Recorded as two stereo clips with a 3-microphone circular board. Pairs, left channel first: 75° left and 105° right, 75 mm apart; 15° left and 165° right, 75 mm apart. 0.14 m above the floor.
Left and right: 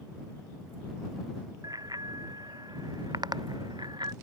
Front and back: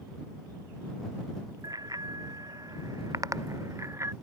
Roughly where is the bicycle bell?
Behind right.